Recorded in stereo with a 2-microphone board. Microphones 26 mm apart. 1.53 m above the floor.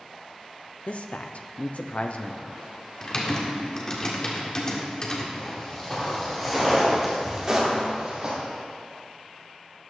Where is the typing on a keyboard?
30° left (ahead or behind), 1.6 m.